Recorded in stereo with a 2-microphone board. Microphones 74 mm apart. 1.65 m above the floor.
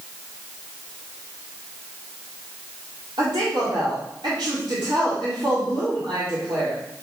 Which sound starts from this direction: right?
A woman speaking, at 3.2 s.